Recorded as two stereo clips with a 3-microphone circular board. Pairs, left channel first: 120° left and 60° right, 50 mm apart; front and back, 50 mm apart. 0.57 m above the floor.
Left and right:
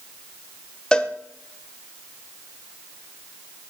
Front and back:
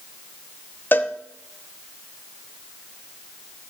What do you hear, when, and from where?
0.9 s a cowbell: 45° left, 0.7 m